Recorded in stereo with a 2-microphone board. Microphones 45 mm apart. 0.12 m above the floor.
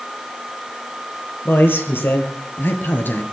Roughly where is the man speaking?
Left.